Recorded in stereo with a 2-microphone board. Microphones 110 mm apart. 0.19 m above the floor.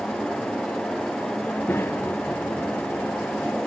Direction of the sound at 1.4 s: 20° left (ahead or behind).